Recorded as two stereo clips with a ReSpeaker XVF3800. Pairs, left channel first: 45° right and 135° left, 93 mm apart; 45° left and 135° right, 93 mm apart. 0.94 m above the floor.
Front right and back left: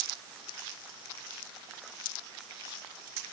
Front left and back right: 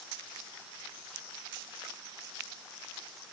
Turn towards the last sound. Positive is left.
No sound to turn to.